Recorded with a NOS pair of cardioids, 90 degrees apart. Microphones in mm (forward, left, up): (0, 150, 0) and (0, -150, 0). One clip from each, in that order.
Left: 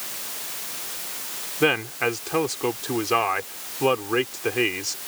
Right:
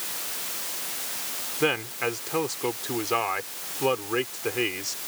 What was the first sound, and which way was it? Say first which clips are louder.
A man speaking: left 4 dB; 30° left.